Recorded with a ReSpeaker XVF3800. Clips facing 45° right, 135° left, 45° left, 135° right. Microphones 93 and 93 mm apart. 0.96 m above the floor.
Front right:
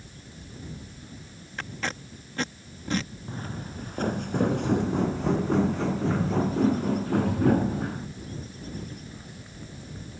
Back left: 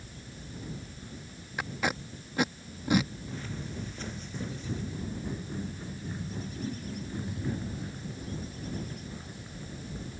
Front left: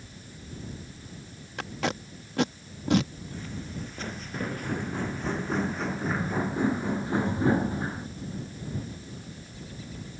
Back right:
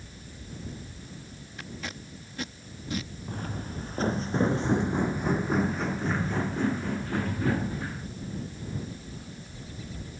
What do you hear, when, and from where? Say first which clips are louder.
1.6 s tape being pulled: back left 2 dB, front left 9 dB; 55° left
3.3 s footsteps: front right 2 dB, back right 2 dB; 95° right; by 8.1 s 15° right